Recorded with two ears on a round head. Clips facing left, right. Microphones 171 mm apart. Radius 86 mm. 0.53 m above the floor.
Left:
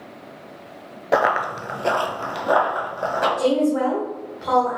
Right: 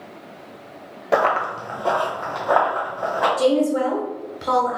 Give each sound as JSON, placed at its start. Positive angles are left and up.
{"t": 1.1, "sound": "running footsteps", "side_deg": 0, "distance_m": 0.5}
{"t": 3.4, "sound": "a woman speaking", "side_deg": -45, "distance_m": 1.3}